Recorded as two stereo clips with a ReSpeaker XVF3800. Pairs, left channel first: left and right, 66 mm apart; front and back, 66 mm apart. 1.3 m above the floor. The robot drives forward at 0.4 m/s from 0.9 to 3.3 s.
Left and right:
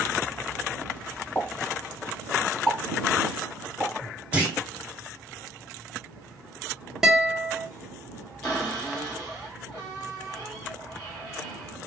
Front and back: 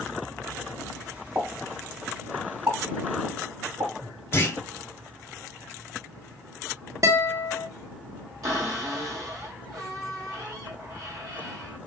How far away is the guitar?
About 0.7 m.